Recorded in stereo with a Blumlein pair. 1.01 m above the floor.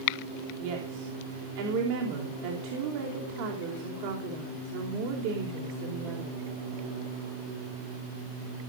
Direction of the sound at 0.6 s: 45° right.